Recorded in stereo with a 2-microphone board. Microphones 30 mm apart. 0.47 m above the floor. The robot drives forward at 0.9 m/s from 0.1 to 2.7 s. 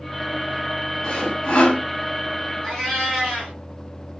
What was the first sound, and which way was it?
Sawing, 25° left (ahead or behind).